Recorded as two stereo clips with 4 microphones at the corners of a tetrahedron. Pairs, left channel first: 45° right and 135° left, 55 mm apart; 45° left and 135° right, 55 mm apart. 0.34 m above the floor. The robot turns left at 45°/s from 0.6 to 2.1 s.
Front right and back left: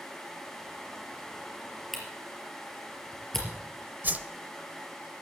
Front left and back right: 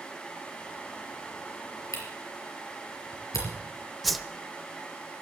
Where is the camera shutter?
50° left, 4 m; by 3.5 s 40° left, 4 m.